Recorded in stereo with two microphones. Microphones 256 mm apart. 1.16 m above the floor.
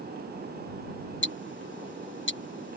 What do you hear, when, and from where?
1.2 s ticking: 45° left (ahead or behind)